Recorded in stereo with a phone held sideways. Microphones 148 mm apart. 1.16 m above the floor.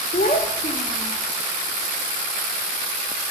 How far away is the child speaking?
About 1.2 m.